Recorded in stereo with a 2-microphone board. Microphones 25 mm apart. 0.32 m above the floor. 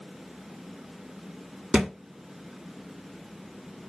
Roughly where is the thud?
Right.